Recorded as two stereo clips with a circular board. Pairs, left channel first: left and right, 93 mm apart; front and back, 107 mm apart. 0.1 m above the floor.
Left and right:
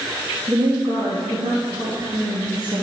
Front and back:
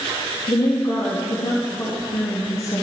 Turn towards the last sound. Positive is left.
turn(degrees=-55)